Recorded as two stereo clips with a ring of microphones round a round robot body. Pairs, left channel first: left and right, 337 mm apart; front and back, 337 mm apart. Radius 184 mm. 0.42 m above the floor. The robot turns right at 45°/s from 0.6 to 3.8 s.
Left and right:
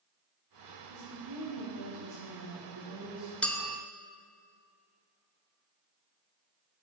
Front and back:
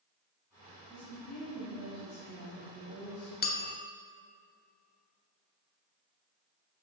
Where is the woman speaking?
105° right, 2.5 m; by 3.3 s straight ahead, 2.5 m.